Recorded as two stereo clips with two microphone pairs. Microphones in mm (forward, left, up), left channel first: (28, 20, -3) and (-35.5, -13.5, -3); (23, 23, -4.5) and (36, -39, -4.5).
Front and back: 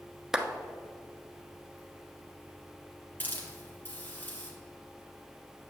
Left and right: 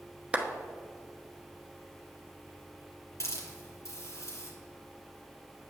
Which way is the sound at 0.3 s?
80° right.